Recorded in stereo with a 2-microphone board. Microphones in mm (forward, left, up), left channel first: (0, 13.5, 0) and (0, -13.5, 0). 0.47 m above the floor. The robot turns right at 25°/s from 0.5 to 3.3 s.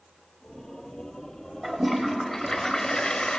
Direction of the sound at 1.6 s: 10° right.